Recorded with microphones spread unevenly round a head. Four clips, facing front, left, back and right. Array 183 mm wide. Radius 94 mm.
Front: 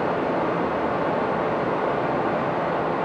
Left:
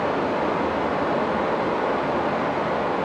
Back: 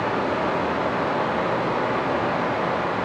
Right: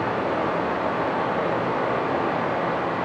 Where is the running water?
50° left, 2.5 m.